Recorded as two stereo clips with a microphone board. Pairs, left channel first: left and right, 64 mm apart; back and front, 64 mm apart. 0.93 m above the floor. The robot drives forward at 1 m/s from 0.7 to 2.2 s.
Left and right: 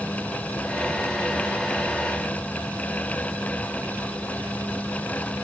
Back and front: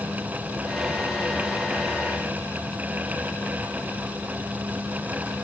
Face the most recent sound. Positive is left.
No sound to turn to.